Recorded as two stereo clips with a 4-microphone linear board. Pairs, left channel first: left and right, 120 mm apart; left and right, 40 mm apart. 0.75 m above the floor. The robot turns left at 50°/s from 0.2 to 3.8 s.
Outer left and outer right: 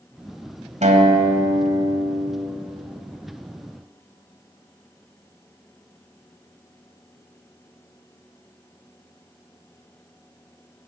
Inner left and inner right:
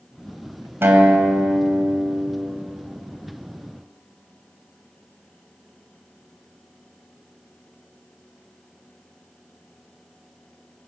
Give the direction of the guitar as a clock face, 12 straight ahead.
2 o'clock.